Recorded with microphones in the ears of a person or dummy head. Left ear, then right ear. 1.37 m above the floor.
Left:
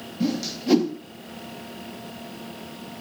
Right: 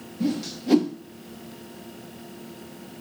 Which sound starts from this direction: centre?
A whoosh, at 0.2 s.